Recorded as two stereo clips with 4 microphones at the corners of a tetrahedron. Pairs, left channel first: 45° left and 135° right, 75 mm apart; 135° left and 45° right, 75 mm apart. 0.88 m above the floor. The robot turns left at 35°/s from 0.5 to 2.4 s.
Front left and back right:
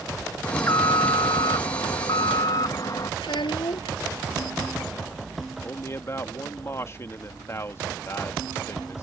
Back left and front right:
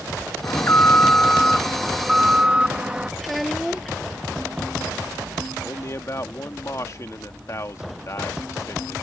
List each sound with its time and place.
0.4 s an alarm: 95° left; by 3.1 s 30° left
3.2 s a child speaking: 45° left
5.6 s a man speaking: 95° left